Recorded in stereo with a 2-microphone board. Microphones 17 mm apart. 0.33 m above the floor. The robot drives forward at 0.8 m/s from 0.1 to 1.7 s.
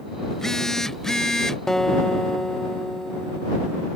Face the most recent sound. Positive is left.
turn(degrees=30)  # may be behind; listen again after turning